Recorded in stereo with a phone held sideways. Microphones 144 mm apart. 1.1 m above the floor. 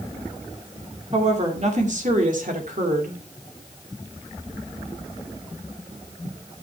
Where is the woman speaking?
50° right (ahead or behind), 2.5 m; by 3.2 s 80° right, 2.5 m.